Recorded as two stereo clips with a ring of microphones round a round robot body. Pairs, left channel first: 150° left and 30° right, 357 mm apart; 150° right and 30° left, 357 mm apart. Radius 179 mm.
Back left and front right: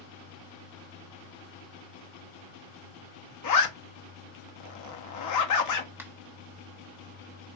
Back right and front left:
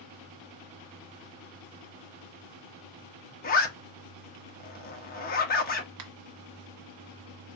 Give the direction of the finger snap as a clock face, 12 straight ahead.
10 o'clock.